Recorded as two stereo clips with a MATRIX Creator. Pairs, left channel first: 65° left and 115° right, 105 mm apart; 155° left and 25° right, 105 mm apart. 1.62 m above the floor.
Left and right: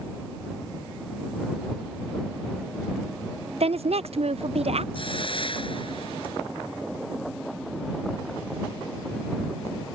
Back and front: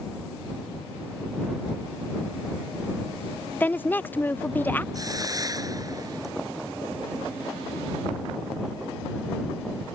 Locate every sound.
3.6 s a woman speaking: 130° right
4.9 s a hiss: 35° left